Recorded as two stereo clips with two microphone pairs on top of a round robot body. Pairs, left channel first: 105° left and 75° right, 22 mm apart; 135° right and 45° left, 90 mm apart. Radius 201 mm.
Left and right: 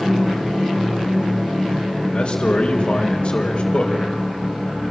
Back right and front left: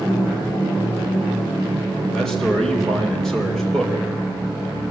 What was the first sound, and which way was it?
A man speaking, 140° left.